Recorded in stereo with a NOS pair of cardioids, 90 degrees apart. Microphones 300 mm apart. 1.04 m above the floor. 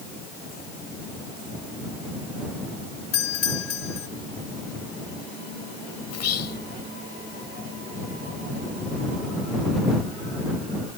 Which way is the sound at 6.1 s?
60° left.